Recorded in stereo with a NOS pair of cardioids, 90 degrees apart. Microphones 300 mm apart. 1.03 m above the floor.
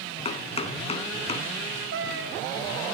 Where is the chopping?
20° left, 3.5 m.